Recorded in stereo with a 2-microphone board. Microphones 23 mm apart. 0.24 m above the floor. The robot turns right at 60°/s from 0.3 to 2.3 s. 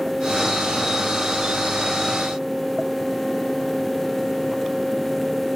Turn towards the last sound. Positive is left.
No sound to turn to.